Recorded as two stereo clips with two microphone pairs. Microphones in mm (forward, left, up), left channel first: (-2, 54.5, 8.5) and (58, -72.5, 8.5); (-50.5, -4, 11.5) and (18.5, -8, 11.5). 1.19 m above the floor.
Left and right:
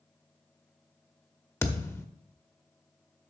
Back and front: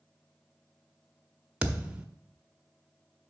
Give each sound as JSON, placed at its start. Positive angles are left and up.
{"t": 1.6, "sound": "a thud", "azimuth_deg": 60, "distance_m": 0.8}